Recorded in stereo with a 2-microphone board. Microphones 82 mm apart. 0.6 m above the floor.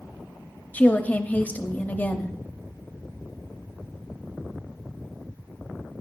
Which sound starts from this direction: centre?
A woman speaking, at 0.7 s.